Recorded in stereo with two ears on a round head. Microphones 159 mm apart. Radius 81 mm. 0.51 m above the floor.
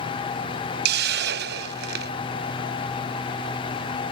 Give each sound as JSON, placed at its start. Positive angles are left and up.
{"t": 0.8, "sound": "a hiss", "side_deg": -60}